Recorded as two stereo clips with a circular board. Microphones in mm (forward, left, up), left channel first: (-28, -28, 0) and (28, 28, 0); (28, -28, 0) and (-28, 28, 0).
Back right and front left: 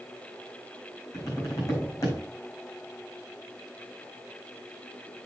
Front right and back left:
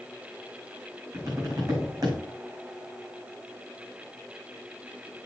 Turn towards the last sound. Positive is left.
turn(degrees=170)